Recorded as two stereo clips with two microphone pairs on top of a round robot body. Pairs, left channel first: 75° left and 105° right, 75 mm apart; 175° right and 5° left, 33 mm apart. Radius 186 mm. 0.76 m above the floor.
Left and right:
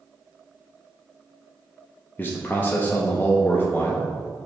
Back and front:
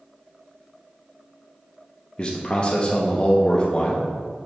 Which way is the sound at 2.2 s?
135° left.